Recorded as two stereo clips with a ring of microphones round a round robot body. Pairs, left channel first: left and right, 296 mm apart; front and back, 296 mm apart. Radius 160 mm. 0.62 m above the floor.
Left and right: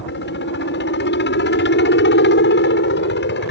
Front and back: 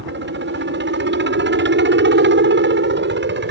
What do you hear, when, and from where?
0.0 s a helicopter: 140° left